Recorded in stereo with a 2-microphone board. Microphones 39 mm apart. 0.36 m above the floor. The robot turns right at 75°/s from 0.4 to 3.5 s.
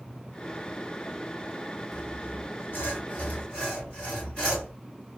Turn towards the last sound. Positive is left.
turn(degrees=145)